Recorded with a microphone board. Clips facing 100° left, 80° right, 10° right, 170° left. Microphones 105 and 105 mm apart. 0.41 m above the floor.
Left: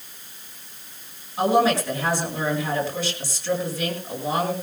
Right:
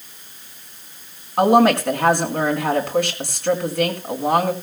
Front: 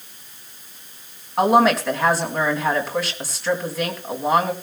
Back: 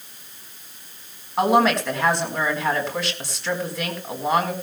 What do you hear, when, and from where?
1.4 s a woman speaking: 100° right, 4.5 m